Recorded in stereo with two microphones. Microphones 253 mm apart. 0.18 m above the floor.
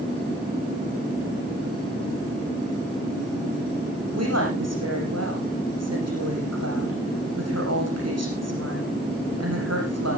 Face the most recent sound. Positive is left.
turn(degrees=-80)